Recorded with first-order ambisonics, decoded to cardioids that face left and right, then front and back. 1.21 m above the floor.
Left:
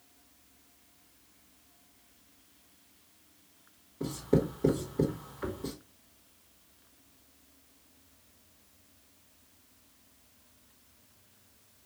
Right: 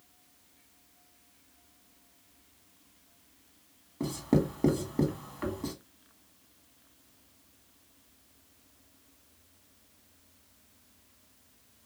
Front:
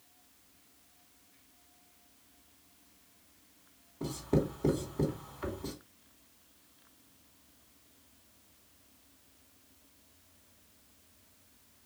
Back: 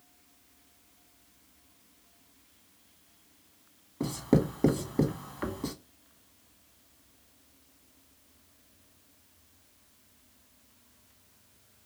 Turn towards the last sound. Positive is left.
turn(degrees=-145)